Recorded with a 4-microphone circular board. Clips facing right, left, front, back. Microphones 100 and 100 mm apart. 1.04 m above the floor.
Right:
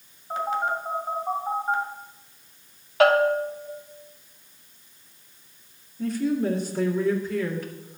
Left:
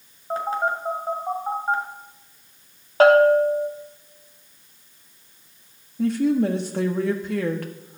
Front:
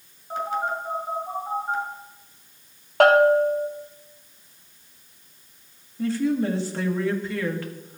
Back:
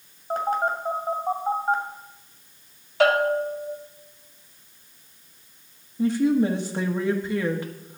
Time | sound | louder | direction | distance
0.3 | a phone buzzing | left 2 dB, back 3 dB | 140° left | 2.5 m
3.0 | a bell | left 5 dB, front 5 dB | 35° left | 1.4 m
6.0 | a woman speaking | left 5 dB, back 3 dB | 110° left | 1.5 m